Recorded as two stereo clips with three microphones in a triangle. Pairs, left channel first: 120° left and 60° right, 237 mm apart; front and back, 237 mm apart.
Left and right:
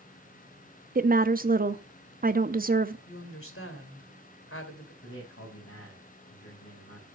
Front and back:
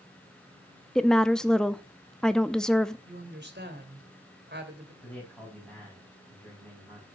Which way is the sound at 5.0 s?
85° left.